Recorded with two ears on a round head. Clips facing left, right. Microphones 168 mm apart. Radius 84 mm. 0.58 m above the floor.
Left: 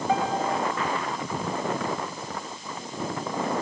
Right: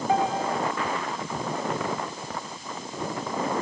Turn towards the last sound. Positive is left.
turn(degrees=75)  # may be behind; listen again after turning